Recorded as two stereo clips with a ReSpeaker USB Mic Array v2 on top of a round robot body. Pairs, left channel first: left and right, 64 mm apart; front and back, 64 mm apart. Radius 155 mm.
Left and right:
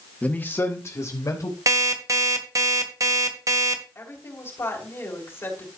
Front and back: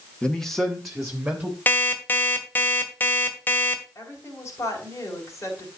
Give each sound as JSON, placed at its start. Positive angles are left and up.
{"t": 0.2, "sound": "a man speaking", "azimuth_deg": 50, "distance_m": 1.5}
{"t": 1.7, "sound": "an alarm clock", "azimuth_deg": -60, "distance_m": 1.7}
{"t": 4.0, "sound": "a woman speaking", "azimuth_deg": 45, "distance_m": 3.5}